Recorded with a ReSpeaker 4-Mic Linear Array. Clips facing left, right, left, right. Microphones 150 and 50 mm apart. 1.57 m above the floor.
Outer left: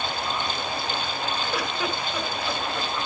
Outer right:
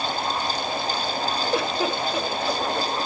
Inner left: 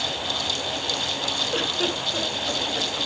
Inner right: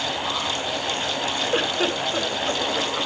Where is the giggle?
25° right (ahead or behind), 1.5 m.